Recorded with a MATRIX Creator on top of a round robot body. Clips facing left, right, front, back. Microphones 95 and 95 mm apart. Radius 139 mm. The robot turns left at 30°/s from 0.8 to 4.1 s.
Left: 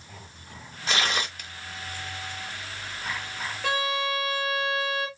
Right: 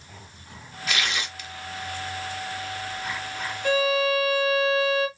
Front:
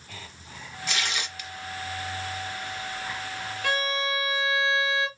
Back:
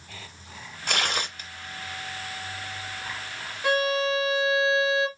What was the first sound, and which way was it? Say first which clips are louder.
Tearing paper: left 2 dB, back 4 dB; 150° left.